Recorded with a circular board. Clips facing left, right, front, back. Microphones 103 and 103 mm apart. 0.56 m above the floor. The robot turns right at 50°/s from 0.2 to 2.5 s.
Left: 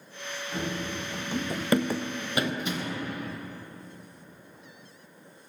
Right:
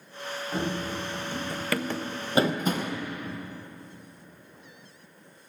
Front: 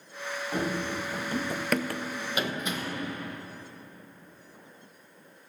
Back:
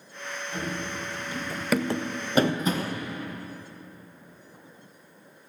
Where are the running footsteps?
30° right, 1.4 m; by 3.0 s 130° right, 1.5 m.